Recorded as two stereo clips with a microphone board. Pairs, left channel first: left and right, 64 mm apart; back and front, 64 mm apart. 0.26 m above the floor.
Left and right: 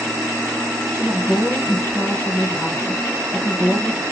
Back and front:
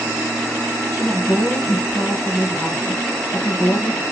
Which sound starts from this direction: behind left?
A woman speaking, at 0.9 s.